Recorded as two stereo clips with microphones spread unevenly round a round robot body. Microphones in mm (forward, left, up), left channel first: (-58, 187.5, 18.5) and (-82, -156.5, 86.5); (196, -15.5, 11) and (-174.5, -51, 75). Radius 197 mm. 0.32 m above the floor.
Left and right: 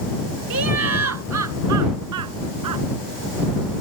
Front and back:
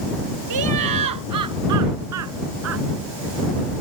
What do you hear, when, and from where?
0.5 s laughter: 140° right; by 2.8 s 125° right